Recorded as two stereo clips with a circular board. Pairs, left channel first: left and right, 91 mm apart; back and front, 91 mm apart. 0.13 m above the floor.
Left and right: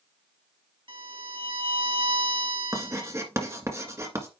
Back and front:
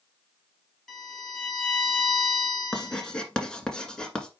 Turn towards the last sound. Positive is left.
turn(degrees=-105)